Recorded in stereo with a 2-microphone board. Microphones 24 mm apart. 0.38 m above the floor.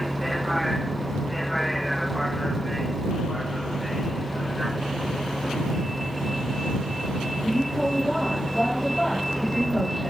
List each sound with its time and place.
0.0 s a vehicle: 5° left (ahead or behind)